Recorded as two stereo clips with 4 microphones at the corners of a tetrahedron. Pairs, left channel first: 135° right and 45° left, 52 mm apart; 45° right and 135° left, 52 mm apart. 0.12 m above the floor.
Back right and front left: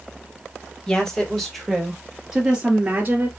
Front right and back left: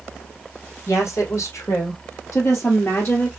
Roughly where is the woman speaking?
Ahead right.